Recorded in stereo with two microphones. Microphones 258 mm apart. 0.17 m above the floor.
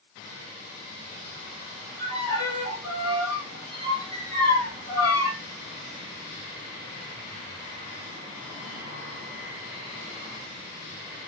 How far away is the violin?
About 7.5 m.